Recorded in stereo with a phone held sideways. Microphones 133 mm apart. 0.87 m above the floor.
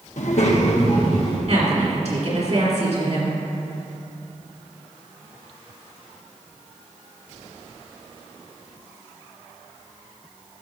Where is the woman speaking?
60° right (ahead or behind), 2.5 m.